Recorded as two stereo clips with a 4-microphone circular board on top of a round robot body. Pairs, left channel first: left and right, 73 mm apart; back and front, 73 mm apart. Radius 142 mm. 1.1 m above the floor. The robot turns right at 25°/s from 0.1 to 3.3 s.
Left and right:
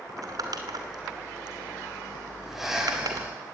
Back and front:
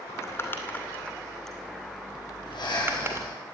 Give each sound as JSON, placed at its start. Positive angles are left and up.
{"t": 0.1, "sound": "crumpling", "azimuth_deg": -135, "distance_m": 2.5}
{"t": 2.5, "sound": "breathing", "azimuth_deg": 180, "distance_m": 7.0}